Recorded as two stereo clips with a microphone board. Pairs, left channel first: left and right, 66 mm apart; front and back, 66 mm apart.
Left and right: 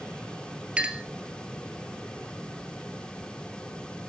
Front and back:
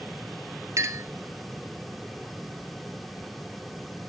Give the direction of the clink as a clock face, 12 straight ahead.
5 o'clock.